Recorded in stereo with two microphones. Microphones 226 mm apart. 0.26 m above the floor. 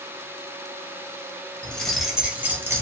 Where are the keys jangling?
5° left (ahead or behind), 0.7 m; by 2.8 s 10° right (ahead or behind), 0.8 m.